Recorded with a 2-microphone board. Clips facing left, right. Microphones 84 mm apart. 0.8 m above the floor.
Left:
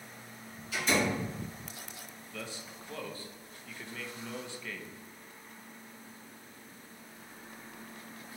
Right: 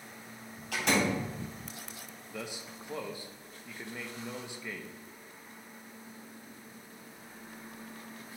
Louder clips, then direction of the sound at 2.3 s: Right 2 dB; 15° right (ahead or behind).